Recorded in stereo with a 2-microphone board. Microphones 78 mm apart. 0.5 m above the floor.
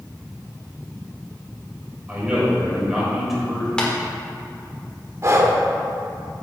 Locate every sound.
2.1 s a man speaking: 20° right (ahead or behind), 2.5 m; by 3.7 s 5° left (ahead or behind), 2.5 m
3.8 s tapping: 10° left (ahead or behind), 1.4 m
5.2 s breathing: 40° right (ahead or behind), 0.9 m